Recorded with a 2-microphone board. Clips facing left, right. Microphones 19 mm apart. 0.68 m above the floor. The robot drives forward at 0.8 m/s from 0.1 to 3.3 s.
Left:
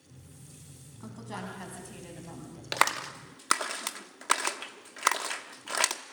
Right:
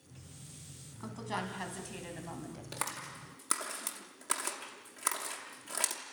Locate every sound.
1.0 s a woman speaking: 15° right (ahead or behind), 5 m; by 2.6 s 20° right (ahead or behind), 3.5 m
2.7 s a clap: 55° left (ahead or behind), 0.7 m; by 6.0 s 40° left (ahead or behind), 0.9 m